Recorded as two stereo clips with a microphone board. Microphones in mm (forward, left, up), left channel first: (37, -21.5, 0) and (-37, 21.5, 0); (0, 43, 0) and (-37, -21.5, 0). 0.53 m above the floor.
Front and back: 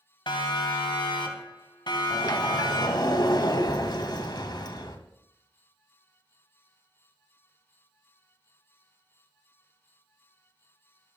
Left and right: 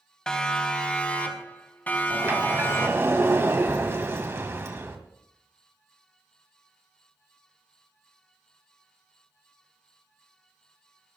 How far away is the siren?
About 3 m.